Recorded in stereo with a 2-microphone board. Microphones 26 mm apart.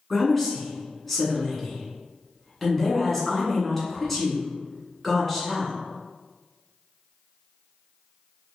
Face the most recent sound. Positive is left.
turn(degrees=5)  # may be behind; listen again after turning